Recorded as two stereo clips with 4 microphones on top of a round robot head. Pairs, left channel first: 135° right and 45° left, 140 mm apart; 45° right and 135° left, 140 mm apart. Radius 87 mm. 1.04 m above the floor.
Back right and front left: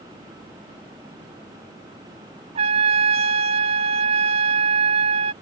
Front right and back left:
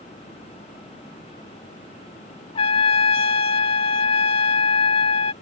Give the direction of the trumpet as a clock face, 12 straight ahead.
12 o'clock.